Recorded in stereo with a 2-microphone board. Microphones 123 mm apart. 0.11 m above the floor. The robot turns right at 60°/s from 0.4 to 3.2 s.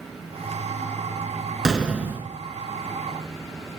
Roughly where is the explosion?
Centre.